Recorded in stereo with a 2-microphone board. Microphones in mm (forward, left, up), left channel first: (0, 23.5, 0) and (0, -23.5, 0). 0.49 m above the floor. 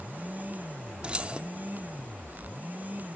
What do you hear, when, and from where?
1.0 s keys jangling: 25° right (ahead or behind), 0.6 m